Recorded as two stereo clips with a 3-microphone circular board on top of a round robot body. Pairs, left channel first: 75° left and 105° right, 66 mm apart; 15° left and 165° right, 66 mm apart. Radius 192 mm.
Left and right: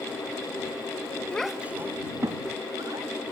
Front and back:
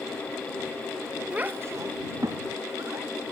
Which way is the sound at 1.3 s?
140° left.